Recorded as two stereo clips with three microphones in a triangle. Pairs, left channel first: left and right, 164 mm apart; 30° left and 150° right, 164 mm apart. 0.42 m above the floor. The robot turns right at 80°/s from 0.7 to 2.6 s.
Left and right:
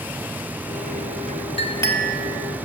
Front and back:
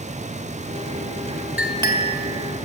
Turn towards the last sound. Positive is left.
turn(degrees=-145)